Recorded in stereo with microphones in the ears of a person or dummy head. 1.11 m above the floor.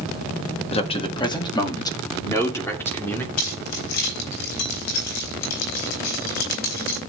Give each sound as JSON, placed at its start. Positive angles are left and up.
{"t": 0.7, "sound": "a man speaking", "side_deg": 30, "distance_m": 1.5}
{"t": 3.4, "sound": "keys jangling", "side_deg": 85, "distance_m": 4.5}